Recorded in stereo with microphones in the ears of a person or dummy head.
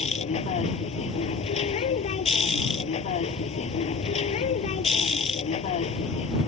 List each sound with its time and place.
0.0 s a machine running: 35° left (ahead or behind)